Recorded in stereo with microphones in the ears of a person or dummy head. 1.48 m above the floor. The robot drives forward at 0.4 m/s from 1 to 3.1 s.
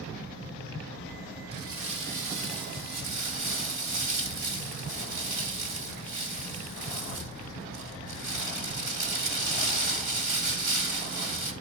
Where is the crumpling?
70° right (ahead or behind), 2.5 m; by 11.5 s 55° right (ahead or behind), 2.5 m.